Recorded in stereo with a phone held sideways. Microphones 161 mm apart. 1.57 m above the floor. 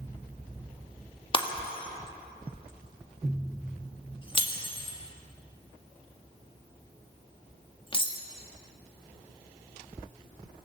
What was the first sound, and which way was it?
Breaking glass, 30° left (ahead or behind).